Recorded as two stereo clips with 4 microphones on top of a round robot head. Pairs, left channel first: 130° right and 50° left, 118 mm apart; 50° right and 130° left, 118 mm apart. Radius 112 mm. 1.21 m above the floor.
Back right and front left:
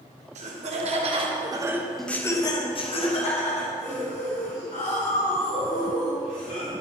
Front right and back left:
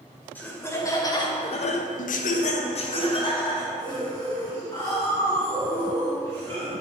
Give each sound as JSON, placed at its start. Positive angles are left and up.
{"t": 0.3, "sound": "laughter", "azimuth_deg": 25, "distance_m": 2.5}